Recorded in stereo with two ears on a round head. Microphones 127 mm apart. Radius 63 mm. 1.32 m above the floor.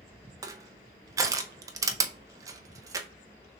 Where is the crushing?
25° right (ahead or behind), 0.6 m.